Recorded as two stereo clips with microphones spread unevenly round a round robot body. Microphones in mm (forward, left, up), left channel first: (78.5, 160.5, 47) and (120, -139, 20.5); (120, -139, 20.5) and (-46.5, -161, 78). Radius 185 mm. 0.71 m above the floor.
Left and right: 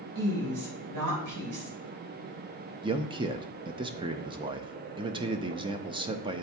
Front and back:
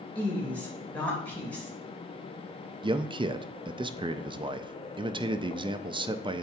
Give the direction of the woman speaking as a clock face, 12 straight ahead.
2 o'clock.